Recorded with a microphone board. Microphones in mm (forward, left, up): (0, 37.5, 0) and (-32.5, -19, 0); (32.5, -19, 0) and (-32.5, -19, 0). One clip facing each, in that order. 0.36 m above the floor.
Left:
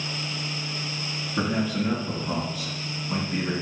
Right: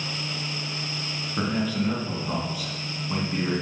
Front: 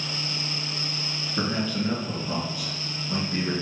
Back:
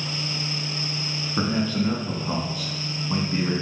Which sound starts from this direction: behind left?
A man speaking, at 1.4 s.